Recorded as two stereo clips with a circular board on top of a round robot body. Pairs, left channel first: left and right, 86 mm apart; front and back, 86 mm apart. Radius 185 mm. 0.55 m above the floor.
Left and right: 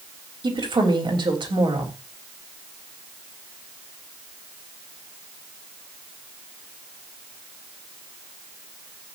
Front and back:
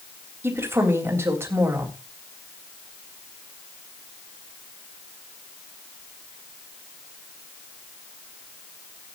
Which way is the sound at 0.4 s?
120° right.